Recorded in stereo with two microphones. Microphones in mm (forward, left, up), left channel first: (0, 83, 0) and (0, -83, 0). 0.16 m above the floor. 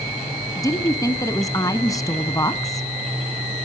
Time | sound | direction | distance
0.6 | a woman speaking | 20° left (ahead or behind) | 1.0 m